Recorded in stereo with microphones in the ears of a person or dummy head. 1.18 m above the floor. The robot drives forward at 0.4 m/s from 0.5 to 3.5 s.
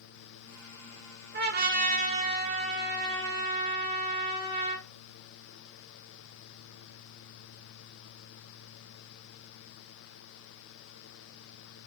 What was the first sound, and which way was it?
A trumpet, 45° right (ahead or behind).